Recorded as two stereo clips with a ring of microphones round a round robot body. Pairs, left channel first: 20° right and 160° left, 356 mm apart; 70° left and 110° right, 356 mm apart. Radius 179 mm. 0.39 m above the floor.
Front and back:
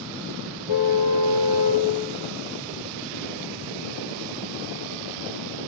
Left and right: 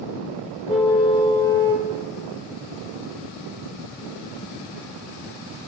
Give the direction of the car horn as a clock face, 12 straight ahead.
12 o'clock.